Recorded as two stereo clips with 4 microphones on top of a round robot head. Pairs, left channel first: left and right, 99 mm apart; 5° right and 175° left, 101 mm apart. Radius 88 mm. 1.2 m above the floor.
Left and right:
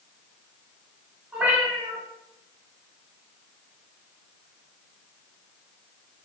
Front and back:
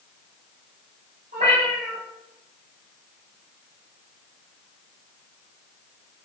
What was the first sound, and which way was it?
A cat meowing, 165° right.